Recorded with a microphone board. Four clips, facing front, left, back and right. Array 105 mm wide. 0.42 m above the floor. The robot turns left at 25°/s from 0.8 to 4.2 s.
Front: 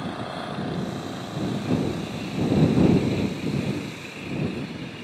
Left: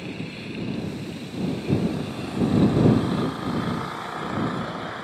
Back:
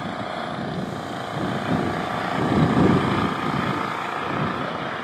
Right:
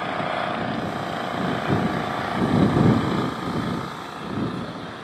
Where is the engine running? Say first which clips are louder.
Right 9 dB, back 3 dB; 105° right; by 5.0 s 170° left.